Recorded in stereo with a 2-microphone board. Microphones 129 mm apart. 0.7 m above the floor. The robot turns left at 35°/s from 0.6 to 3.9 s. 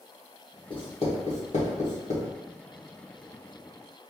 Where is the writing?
40° left (ahead or behind), 1.6 m; by 2.3 s 70° left (ahead or behind), 1.6 m.